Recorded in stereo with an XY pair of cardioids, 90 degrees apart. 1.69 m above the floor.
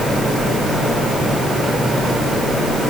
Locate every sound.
Only background noise.